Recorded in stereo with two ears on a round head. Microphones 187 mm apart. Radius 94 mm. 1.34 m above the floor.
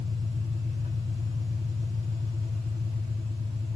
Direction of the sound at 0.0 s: 20° right (ahead or behind).